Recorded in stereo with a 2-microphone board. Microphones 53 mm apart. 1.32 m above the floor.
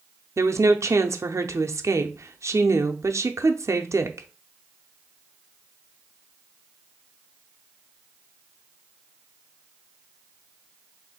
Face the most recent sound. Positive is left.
turn(degrees=-60)  # may be behind; listen again after turning